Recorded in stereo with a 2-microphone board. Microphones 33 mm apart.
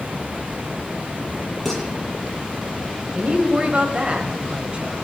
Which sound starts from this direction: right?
A woman speaking, at 3.1 s.